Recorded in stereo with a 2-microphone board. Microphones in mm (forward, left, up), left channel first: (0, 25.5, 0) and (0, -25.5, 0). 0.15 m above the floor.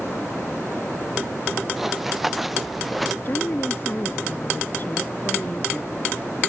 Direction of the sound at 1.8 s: 5° right (ahead or behind).